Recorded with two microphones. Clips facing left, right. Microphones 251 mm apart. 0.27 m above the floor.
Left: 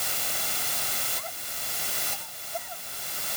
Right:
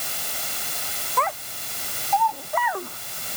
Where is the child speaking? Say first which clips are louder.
Right 13 dB; 85° right.